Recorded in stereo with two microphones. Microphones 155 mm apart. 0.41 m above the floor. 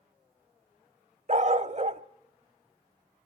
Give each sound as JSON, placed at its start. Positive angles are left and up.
{"t": 1.3, "sound": "a dog barking", "side_deg": -50, "distance_m": 0.8}